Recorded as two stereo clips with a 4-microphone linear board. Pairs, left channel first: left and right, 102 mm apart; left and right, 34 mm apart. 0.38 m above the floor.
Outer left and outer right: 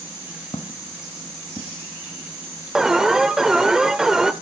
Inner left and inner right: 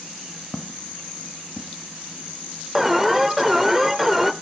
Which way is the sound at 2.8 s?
5° right (ahead or behind).